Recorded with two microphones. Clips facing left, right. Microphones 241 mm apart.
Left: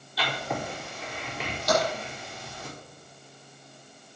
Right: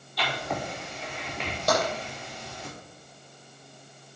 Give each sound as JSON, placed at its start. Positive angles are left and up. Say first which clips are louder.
{"t": 0.2, "sound": "writing", "louder": "even", "side_deg": 5, "distance_m": 6.5}
{"t": 1.7, "sound": "tapping", "louder": "left 1 dB", "side_deg": -50, "distance_m": 6.5}